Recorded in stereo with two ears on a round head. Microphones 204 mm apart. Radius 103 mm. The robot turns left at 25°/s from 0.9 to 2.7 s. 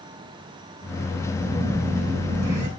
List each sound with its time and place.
1.4 s a phone buzzing: straight ahead, 9 m; by 2.7 s 30° right, 9 m